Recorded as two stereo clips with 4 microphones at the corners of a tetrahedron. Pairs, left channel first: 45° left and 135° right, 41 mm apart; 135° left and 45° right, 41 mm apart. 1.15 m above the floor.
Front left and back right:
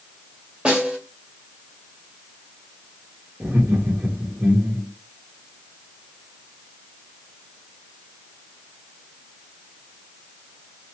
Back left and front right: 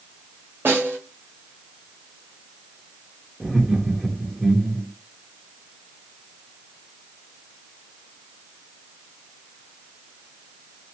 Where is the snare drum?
75° right, 1.7 m.